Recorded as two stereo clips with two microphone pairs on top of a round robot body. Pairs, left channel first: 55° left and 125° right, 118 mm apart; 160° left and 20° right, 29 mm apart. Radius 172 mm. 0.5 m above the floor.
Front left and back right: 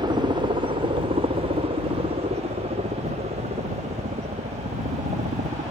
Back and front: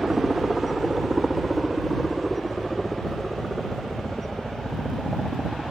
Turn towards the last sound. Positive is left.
turn(degrees=-120)